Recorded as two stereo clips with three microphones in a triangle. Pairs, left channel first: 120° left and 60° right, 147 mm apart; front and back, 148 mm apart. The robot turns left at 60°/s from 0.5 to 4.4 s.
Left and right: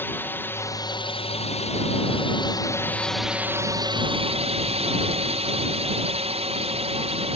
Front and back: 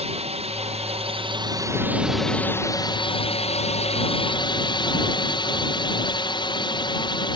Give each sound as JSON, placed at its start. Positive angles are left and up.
{"t": 0.0, "sound": "a drone", "azimuth_deg": -170}